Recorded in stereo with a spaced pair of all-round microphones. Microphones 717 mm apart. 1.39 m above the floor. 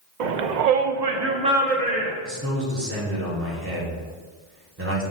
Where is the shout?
85° right, 0.7 m; by 2.1 s 15° left (ahead or behind), 0.9 m.